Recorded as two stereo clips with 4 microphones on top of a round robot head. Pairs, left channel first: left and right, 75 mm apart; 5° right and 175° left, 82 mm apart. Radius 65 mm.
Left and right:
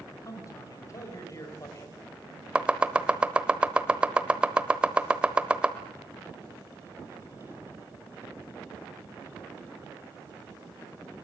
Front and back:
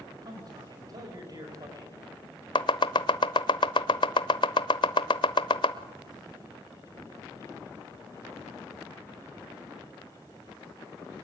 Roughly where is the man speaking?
Behind left.